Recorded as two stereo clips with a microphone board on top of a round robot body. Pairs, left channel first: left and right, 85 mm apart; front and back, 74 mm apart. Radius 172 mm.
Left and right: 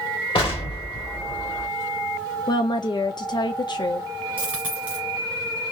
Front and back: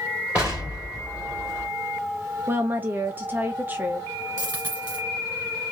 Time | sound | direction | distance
0.3 | an explosion | 105° left | 1.6 m
2.5 | a woman speaking | 120° left | 0.6 m
4.4 | a dropped coin | 160° right | 1.0 m